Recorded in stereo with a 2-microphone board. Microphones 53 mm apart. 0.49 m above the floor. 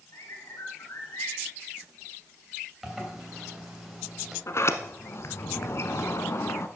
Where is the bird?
70° left (ahead or behind), 3.5 m.